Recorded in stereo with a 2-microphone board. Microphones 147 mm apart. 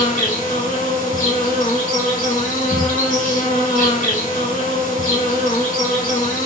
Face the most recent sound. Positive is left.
turn(degrees=65)  # may be behind; listen again after turning